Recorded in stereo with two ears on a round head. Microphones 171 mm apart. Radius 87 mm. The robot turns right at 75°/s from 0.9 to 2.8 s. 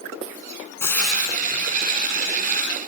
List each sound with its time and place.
0.8 s frying: 165° left, 1.8 m; by 1.7 s 135° right, 1.8 m